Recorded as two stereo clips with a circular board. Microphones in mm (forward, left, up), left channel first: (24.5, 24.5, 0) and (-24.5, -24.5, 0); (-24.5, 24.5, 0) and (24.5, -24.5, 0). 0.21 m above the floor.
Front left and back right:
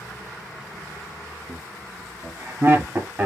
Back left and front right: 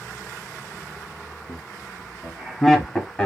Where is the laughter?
100° right, 1.4 m; by 3.3 s 165° right, 1.1 m.